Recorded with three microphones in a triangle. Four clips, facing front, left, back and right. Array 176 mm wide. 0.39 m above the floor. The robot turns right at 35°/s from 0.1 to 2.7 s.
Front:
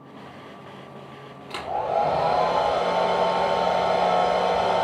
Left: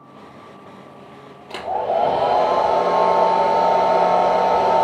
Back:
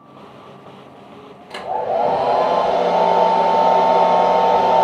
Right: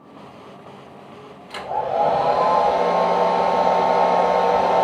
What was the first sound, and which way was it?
A hair dryer, 100° left.